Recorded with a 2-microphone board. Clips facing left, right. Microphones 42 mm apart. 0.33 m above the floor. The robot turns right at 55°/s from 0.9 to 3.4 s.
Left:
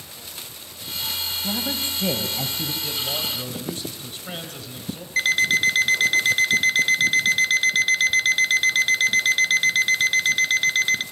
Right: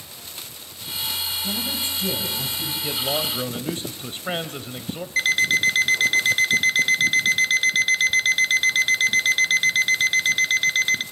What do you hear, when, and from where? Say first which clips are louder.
1.4 s a woman speaking: left 3 dB; 35° left, 2 m; by 2.7 s 105° left, 2 m
2.8 s a man speaking: right 6 dB; 145° right, 1.2 m; by 5.1 s 115° right, 1.2 m
5.2 s an alarm clock: even; centre (ahead or behind), 0.6 m